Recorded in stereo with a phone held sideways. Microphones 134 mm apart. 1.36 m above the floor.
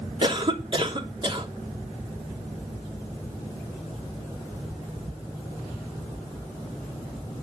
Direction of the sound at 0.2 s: 40° right (ahead or behind).